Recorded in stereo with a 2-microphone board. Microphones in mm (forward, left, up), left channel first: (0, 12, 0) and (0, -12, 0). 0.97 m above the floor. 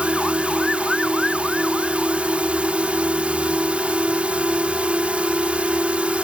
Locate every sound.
0.0 s a drone: 65° right (ahead or behind)